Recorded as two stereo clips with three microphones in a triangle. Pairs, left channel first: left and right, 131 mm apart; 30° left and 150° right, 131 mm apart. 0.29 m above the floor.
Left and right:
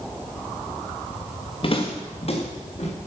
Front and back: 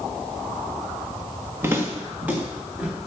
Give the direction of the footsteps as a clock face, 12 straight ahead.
7 o'clock.